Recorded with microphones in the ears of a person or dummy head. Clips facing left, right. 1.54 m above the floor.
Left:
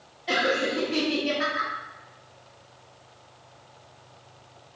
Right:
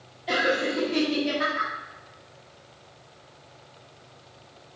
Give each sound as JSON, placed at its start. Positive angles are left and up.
{"t": 0.3, "sound": "laughter", "side_deg": 0, "distance_m": 0.6}